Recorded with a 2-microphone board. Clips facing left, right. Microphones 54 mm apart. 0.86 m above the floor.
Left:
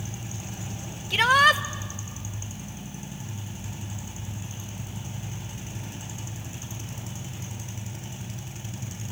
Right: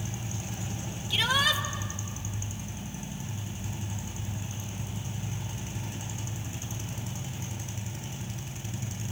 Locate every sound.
1.1 s a shout: 60° left (ahead or behind), 1.0 m